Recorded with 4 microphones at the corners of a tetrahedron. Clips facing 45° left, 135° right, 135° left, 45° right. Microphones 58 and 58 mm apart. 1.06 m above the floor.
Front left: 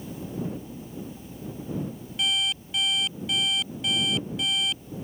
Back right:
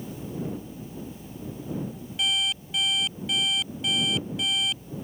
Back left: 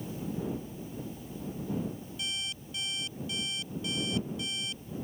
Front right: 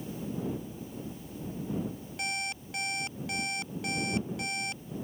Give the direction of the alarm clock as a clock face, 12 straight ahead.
1 o'clock.